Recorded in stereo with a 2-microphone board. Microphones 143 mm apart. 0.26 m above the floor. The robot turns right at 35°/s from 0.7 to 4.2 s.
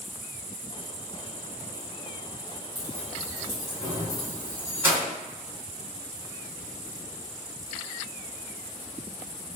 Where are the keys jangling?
25° left (ahead or behind), 1.6 m; by 5.1 s 15° right (ahead or behind), 1.6 m.